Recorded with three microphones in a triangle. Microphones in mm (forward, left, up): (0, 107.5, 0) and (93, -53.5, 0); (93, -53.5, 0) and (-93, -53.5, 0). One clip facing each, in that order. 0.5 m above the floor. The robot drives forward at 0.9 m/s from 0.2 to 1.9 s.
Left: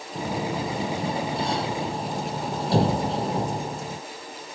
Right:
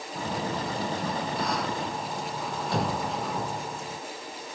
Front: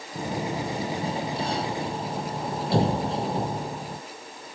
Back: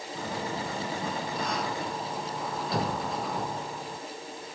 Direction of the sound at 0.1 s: 55° left.